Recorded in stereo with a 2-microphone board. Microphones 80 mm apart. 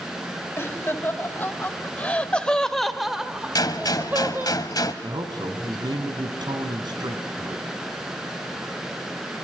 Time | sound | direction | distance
0.6 | laughter | 30° left (ahead or behind) | 2 m
3.5 | a gunshot | 55° left (ahead or behind) | 1.5 m
5.0 | a man speaking | 70° right (ahead or behind) | 3 m